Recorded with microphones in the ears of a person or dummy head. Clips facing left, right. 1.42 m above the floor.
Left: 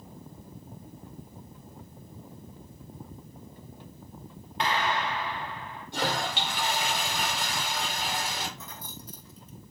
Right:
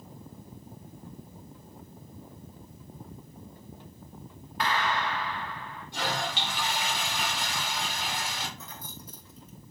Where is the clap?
25° left (ahead or behind), 2 m.